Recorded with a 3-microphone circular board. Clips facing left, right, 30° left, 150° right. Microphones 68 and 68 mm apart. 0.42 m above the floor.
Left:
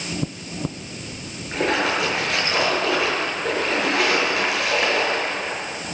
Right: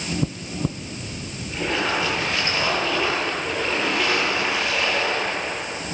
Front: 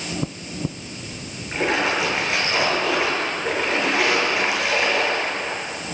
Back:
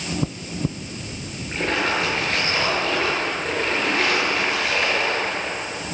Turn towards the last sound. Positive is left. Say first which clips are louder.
# left 3 dB, front 1 dB
turn(degrees=110)